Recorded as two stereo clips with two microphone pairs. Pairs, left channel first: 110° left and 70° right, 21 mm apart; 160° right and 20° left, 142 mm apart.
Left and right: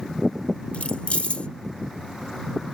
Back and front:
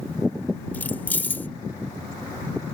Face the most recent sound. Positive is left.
turn(degrees=125)